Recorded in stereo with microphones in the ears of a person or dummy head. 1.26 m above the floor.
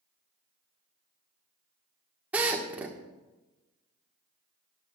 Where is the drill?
10° right (ahead or behind), 1.4 m.